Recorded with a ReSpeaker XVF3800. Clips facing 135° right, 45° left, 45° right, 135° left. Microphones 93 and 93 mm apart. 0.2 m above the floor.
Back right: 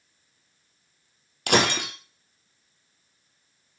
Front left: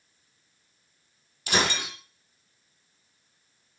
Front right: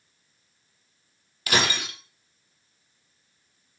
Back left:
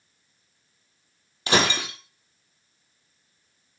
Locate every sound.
1.5 s breaking glass: 160° right, 1.7 m